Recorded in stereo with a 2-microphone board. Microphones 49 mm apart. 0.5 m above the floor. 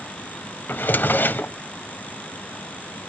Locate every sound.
0.7 s a drawer: 45° left (ahead or behind), 0.5 m